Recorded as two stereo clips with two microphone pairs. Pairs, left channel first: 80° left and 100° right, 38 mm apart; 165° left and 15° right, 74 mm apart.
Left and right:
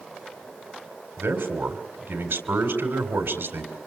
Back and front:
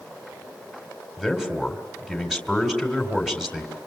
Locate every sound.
1.2 s a man speaking: 100° right, 3.5 m